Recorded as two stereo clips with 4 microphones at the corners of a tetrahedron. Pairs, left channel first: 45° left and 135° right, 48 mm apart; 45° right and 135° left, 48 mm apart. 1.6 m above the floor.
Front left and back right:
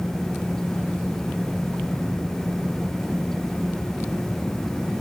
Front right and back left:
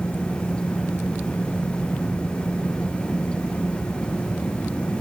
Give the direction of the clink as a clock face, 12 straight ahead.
No clink in this recording.